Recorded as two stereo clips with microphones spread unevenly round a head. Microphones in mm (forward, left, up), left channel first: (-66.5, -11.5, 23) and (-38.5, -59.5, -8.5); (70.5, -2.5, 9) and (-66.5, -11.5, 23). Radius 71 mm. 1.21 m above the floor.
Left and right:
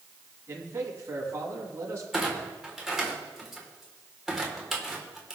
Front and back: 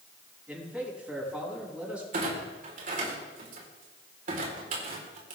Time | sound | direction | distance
0.5 | a man speaking | 95° right | 7.5 m
2.1 | a clunk | 145° right | 4 m